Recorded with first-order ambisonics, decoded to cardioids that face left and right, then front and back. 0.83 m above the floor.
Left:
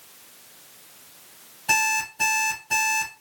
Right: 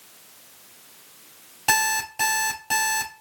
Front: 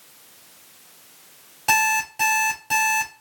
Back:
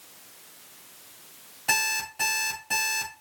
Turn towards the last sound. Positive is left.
turn(degrees=-60)